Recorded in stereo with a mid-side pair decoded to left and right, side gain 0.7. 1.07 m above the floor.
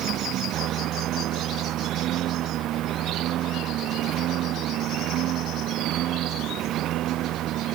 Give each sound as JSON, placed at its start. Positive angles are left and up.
{"t": 0.0, "sound": "a lawn mower", "azimuth_deg": -50}